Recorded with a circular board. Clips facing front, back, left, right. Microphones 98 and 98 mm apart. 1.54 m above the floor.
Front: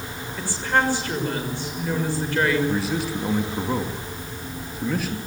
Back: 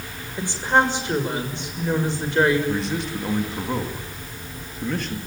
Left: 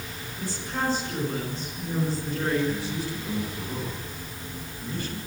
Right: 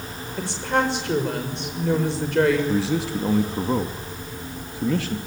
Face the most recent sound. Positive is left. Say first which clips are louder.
# front 1 dB, right 7 dB
turn(degrees=-85)